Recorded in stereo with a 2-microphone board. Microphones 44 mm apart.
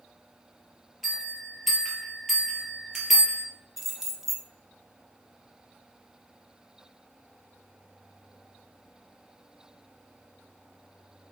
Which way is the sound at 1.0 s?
Centre (ahead or behind).